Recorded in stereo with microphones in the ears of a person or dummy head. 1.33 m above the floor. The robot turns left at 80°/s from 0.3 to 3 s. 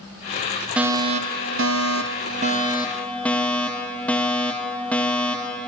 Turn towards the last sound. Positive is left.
turn(degrees=175)